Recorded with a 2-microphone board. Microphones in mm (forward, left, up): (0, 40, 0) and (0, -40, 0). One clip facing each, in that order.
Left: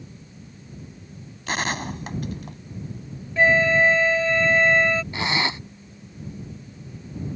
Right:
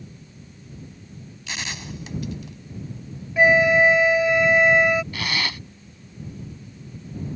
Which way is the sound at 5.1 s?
25° left (ahead or behind).